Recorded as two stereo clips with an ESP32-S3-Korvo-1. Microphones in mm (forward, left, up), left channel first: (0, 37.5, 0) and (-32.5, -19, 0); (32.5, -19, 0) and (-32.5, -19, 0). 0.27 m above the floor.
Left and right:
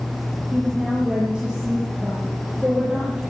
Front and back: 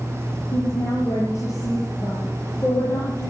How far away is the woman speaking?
About 7.5 m.